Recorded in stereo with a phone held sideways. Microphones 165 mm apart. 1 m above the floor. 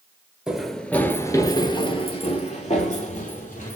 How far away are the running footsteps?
About 1.0 m.